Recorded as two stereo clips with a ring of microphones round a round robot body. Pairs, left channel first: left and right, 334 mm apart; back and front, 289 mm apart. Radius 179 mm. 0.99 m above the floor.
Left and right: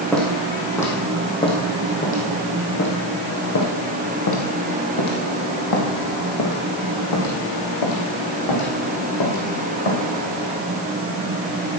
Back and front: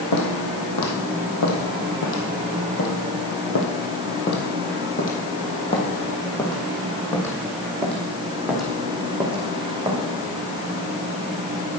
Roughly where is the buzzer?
No buzzer in this recording.